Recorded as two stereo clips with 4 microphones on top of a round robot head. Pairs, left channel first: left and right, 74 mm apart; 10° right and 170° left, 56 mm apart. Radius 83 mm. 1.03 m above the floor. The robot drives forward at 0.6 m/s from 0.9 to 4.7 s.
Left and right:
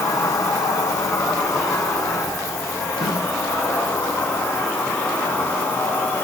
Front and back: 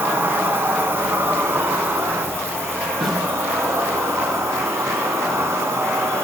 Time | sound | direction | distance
0.0 | an insect | 125° left | 3.5 m
3.0 | a snare drum | 80° left | 9 m